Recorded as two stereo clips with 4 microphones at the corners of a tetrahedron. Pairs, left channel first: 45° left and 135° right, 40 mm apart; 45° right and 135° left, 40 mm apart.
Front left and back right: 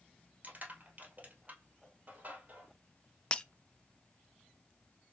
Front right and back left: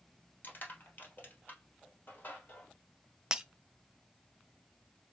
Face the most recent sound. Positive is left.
turn(degrees=80)